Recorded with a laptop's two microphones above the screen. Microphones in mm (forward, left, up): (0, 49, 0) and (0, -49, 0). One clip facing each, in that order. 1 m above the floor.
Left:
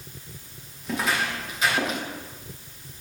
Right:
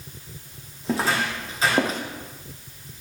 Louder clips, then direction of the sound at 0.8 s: Right 3 dB; 30° right (ahead or behind).